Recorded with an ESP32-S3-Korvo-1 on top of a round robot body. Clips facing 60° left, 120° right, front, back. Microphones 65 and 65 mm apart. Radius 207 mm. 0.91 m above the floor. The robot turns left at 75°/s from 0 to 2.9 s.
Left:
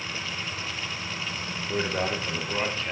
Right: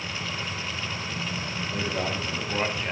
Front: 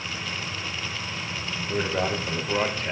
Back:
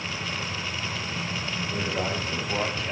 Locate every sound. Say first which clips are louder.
1.7 s a man speaking: left 3 dB, front 4 dB; 40° left, 3 m; by 2.9 s 50° right, 3 m